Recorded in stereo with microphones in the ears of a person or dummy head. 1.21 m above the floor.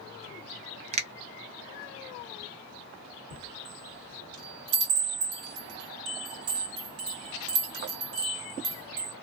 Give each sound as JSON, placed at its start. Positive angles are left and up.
{"t": 0.9, "sound": "a finger snap", "side_deg": -35, "distance_m": 0.5}
{"t": 3.3, "sound": "a chime", "side_deg": -60, "distance_m": 2.0}